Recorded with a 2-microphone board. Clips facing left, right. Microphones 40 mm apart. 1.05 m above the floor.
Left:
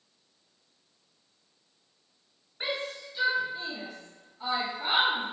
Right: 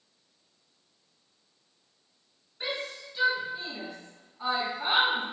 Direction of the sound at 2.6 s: 25° left (ahead or behind).